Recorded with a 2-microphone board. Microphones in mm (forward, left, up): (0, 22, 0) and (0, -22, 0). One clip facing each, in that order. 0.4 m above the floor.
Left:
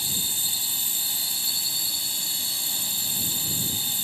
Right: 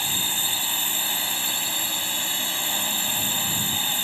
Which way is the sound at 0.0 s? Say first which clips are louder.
Right 5 dB; 50° right (ahead or behind).